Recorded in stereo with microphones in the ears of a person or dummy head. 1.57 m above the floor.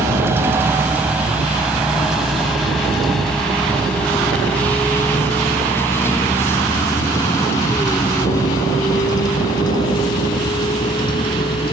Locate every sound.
0.0 s a vehicle: 15° right (ahead or behind); by 11.7 s 25° left (ahead or behind)